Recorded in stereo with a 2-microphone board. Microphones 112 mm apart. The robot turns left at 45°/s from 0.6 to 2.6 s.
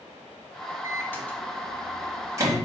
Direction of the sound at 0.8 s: 30° left (ahead or behind).